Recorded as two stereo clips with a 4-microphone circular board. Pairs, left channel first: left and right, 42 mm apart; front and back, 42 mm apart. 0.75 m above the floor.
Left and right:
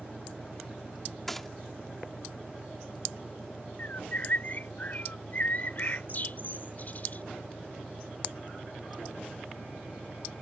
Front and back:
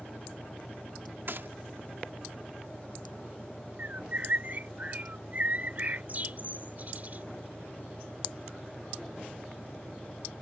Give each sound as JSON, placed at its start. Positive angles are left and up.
{"t": 0.0, "sound": "an engine running", "azimuth_deg": 105}
{"t": 1.3, "sound": "a gunshot", "azimuth_deg": 175}
{"t": 3.8, "sound": "a bird", "azimuth_deg": 130}